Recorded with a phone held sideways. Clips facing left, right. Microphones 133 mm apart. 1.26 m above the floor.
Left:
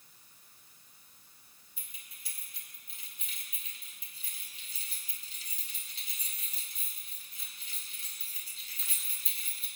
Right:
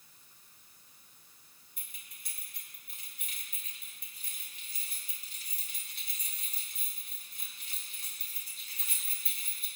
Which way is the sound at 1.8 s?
75° right (ahead or behind).